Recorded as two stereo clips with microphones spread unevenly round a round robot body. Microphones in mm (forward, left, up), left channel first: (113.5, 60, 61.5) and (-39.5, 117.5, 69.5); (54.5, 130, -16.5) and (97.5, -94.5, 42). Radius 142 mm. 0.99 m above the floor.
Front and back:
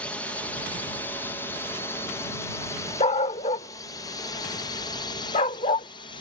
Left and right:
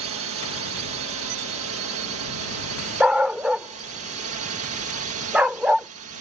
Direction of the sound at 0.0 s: 100° right.